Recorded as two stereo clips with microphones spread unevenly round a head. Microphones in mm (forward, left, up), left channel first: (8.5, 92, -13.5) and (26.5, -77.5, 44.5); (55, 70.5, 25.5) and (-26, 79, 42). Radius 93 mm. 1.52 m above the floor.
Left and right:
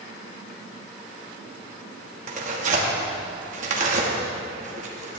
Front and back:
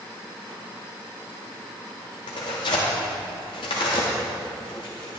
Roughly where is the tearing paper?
Ahead right.